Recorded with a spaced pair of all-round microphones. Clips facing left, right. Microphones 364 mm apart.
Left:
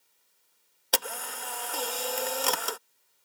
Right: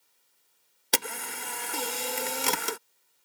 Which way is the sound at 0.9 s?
35° right (ahead or behind).